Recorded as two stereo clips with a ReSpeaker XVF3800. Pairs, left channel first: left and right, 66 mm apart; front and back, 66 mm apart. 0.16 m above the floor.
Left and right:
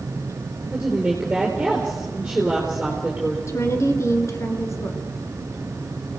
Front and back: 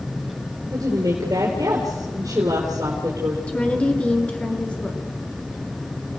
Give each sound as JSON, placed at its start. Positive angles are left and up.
{"t": 0.7, "sound": "a woman speaking", "azimuth_deg": -170, "distance_m": 3.5}
{"t": 3.5, "sound": "a woman speaking", "azimuth_deg": 65, "distance_m": 2.5}